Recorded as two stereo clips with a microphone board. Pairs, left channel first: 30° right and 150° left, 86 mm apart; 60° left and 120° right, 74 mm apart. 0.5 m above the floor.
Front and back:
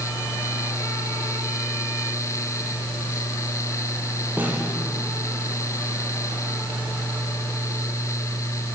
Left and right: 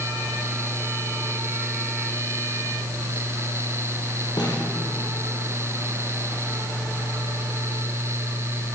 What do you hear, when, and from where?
4.4 s a snare drum: 80° left, 7.5 m